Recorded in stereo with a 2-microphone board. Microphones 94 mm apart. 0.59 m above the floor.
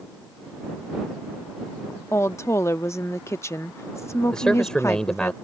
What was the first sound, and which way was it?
A woman speaking, 30° left (ahead or behind).